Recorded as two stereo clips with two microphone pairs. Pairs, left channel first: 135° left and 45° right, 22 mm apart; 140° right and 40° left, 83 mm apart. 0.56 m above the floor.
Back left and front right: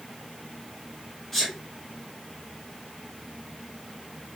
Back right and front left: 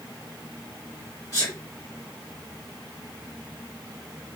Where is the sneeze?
160° right, 1.6 m.